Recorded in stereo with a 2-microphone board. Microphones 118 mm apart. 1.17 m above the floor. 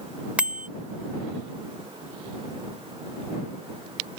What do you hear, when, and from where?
0.4 s a bicycle bell: 10° right (ahead or behind)